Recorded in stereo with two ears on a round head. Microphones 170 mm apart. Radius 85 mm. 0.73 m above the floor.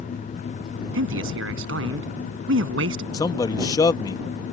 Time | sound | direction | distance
0.9 | a man speaking | 75° right (ahead or behind) | ?
3.1 | a man speaking | 20° left (ahead or behind) | ?